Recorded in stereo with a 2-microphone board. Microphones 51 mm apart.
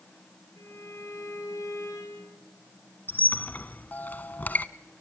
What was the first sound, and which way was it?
A violin, 85° left.